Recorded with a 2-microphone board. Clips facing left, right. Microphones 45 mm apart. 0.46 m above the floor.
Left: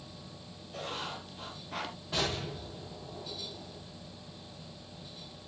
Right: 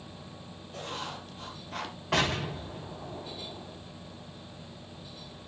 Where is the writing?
5° left (ahead or behind), 2.5 m.